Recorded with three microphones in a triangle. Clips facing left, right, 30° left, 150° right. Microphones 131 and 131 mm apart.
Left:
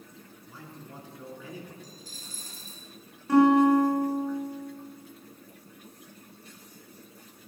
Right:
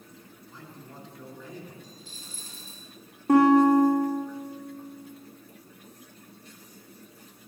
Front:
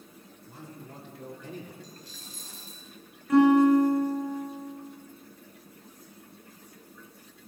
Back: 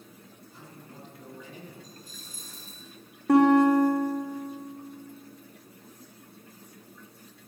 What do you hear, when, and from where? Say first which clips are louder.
0.5 s a man speaking: left 1 dB, front 5 dB; 10° left, 3.5 m
1.8 s a dropped coin: even, front 1 dB; 40° left, 3 m
3.3 s a guitar: right 1 dB, even; 135° right, 3 m